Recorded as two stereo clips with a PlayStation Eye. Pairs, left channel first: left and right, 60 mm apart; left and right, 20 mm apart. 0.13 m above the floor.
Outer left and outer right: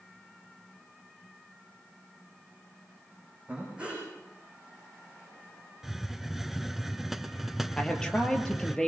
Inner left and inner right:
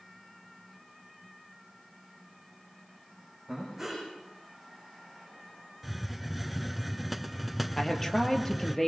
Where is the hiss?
5° right (ahead or behind), 0.6 m.